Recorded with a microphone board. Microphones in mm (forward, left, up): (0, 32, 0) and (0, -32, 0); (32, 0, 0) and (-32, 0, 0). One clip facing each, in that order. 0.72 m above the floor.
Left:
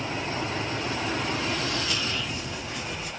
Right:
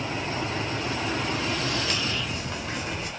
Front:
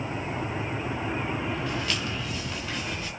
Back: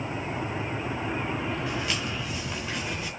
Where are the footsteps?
100° right, 4.5 m; by 3.1 s 95° right, 6 m.